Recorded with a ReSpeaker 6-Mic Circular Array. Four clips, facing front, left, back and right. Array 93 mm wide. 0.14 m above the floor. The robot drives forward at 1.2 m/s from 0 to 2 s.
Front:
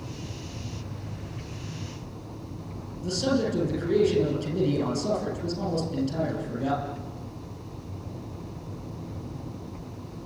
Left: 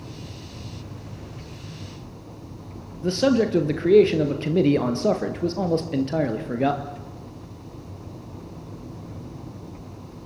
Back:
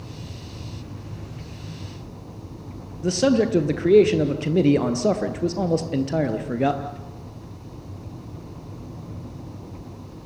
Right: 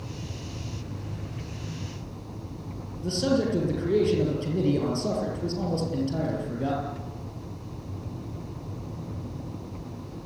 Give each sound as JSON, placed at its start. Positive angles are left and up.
{"t": 3.0, "sound": "a man speaking", "azimuth_deg": 140, "distance_m": 4.0}